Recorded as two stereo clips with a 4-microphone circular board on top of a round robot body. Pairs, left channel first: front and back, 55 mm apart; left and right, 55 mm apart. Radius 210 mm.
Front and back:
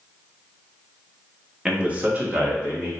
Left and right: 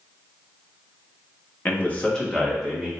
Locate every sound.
1.6 s a man speaking: 110° left, 1.2 m; by 2.9 s 165° right, 1.6 m